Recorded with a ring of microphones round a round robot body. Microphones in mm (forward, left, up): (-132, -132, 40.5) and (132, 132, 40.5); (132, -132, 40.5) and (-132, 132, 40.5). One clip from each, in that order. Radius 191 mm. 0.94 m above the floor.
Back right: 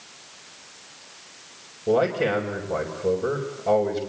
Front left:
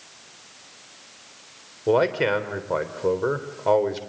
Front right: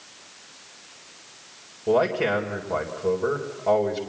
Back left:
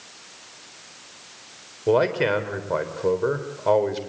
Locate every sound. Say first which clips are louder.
1.9 s a man speaking: front left 1 dB, back left 1 dB; 70° left, 3.5 m